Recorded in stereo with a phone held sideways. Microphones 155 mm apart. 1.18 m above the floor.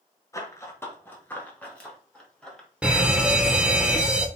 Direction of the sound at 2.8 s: 5° right (ahead or behind).